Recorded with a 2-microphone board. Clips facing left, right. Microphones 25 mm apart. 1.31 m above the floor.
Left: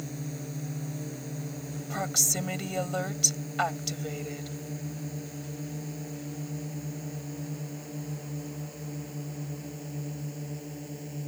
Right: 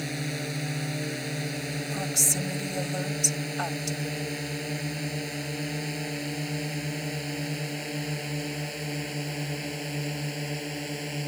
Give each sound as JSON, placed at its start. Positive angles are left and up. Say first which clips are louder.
{"t": 0.0, "sound": "a drone", "louder": "right 6 dB", "side_deg": -85}
{"t": 1.9, "sound": "a woman speaking", "louder": "left 1 dB", "side_deg": 25}